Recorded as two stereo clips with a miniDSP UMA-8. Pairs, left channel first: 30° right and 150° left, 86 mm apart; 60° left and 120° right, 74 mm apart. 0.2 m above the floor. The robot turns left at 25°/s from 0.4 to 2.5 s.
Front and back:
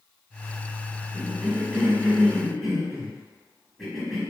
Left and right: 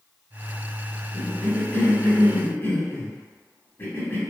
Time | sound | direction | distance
1.1 | a cough | 100° left | 1.0 m